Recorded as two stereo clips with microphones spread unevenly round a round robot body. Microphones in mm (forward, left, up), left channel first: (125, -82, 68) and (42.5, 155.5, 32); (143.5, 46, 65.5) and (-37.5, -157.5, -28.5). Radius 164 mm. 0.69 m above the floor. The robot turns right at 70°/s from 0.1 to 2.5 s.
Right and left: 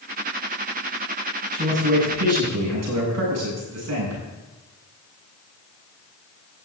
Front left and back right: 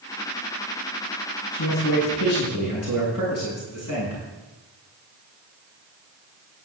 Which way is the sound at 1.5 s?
35° left.